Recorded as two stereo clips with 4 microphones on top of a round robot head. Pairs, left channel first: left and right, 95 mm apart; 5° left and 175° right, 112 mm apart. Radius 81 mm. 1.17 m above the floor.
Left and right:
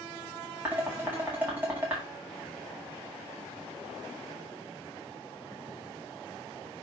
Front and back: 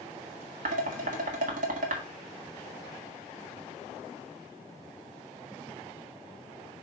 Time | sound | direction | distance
0.7 | dishes clattering | 170° right | 1.7 m